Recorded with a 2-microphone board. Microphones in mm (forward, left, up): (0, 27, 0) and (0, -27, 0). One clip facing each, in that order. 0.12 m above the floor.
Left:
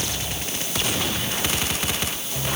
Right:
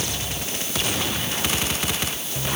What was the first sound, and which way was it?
Only background noise.